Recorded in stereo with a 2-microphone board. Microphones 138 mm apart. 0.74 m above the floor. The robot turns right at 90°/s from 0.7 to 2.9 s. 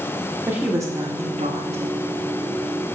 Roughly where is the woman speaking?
Behind.